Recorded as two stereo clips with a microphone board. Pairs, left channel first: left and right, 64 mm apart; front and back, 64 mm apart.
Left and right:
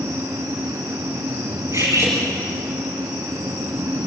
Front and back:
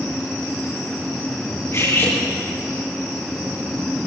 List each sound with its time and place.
1.7 s cutlery clinking: 50° right, 5 m